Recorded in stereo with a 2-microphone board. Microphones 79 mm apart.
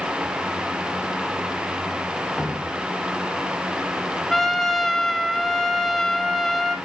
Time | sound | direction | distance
2.4 | dripping | 5° left (ahead or behind) | 1.6 m
4.3 | a trumpet | 5° left (ahead or behind) | 1.4 m